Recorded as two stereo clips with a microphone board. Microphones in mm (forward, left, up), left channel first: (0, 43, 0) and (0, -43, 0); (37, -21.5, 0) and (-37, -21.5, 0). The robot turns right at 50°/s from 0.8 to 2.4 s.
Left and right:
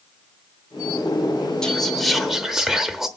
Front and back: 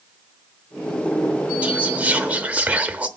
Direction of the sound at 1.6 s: 155° left.